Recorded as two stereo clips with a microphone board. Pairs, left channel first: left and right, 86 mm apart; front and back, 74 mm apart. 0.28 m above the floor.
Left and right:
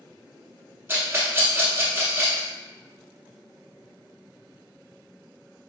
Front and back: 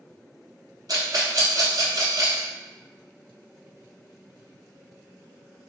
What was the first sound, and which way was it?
A rattle, 150° right.